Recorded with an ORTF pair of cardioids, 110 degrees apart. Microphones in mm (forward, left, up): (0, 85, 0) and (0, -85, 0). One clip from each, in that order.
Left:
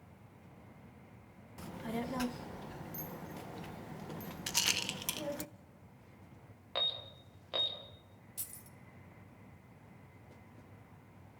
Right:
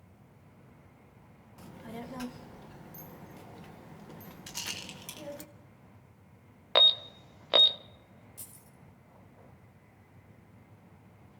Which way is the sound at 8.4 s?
40° left.